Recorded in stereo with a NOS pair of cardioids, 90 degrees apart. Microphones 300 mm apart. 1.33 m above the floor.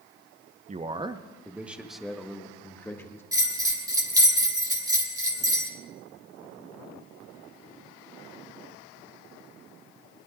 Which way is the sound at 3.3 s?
10° right.